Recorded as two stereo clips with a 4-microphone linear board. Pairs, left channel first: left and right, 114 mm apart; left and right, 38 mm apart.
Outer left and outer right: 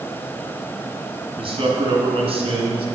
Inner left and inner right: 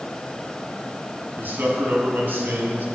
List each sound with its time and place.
1.4 s a man speaking: 55° right (ahead or behind), 2.5 m; by 2.9 s 60° right (ahead or behind), 2.5 m